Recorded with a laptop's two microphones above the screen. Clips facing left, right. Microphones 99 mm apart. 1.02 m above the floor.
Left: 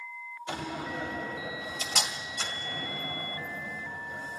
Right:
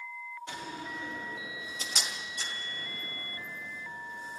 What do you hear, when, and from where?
0.5 s a door slam: 80° left, 2 m